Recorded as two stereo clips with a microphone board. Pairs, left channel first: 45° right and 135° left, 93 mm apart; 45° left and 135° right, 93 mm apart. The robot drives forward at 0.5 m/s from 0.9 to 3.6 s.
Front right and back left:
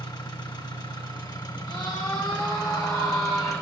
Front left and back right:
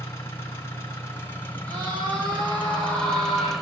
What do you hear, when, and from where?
0.0 s an engine running: 15° right, 2 m; by 3.6 s 50° right, 1.1 m
1.7 s a scream: 85° right, 4 m; by 3.5 s 100° right, 4 m